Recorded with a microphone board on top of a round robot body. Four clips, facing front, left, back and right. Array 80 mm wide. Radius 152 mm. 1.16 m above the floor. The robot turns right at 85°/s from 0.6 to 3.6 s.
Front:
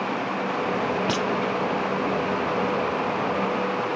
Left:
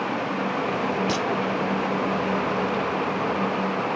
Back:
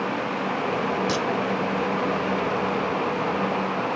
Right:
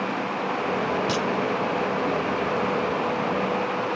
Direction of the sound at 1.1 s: Straight ahead.